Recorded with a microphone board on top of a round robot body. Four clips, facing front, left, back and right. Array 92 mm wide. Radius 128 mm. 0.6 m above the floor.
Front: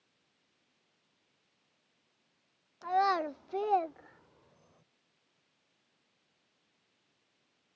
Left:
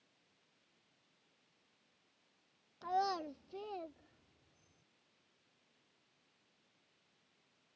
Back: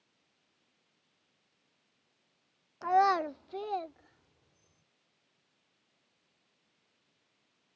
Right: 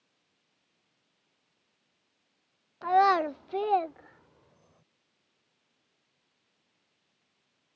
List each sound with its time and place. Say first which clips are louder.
2.8 s a child speaking: right 14 dB, back 3 dB; 125° right; by 4.8 s 50° right